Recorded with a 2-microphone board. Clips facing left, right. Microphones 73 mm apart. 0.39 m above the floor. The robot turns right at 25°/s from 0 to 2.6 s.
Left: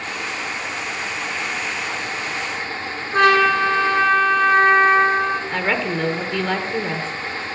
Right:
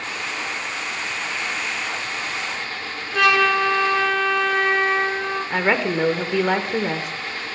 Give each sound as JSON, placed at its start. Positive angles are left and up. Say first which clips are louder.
{"t": 3.1, "sound": "a trumpet", "louder": "left 3 dB", "side_deg": 40, "distance_m": 1.6}
{"t": 5.5, "sound": "a woman speaking", "louder": "right 1 dB", "side_deg": -15, "distance_m": 0.8}